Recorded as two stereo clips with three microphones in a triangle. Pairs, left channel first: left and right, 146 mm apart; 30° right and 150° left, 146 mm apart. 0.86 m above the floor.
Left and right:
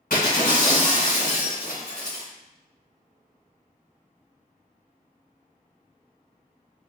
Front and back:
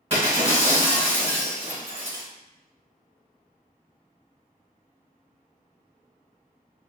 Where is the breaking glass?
105° left, 1.7 m.